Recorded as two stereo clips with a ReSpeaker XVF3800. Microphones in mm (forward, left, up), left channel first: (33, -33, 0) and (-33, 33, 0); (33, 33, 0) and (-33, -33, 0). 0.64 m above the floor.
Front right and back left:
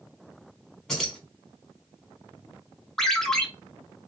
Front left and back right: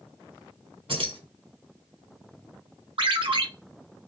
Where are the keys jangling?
130° right, 1.9 m.